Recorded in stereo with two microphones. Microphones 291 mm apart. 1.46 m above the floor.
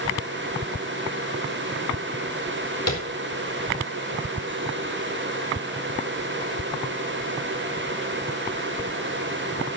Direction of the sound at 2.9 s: 60° left (ahead or behind).